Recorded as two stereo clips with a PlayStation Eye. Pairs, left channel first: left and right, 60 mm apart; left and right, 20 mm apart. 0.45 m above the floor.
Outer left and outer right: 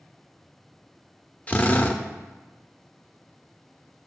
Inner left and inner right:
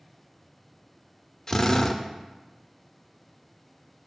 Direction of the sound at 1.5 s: 30° left (ahead or behind).